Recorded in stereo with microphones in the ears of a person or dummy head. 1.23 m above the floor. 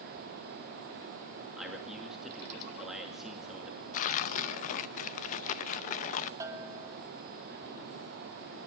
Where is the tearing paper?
40° left (ahead or behind), 0.6 m.